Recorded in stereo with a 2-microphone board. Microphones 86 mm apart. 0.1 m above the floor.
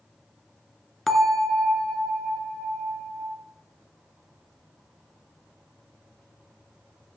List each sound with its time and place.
1.1 s a bell: centre (ahead or behind), 0.9 m